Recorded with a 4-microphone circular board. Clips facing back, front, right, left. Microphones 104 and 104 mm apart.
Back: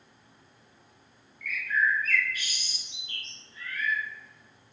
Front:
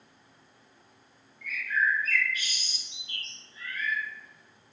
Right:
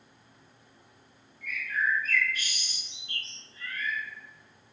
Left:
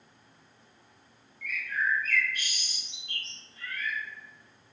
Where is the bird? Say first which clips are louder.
Back 1 dB, right 1 dB; 65° left, 1.7 m.